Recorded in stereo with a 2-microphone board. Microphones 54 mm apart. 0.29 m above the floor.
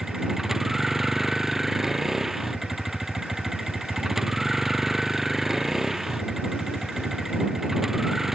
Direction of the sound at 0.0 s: 5° right (ahead or behind).